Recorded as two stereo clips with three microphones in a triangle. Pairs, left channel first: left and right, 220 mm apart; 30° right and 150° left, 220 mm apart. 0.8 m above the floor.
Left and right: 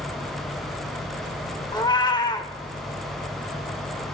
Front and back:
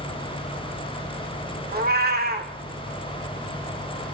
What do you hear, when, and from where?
1.7 s a cat meowing: 150° left, 0.5 m